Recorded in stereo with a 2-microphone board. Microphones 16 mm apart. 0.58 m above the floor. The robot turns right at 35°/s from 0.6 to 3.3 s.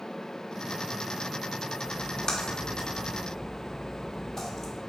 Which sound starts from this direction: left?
A splash, at 1.9 s.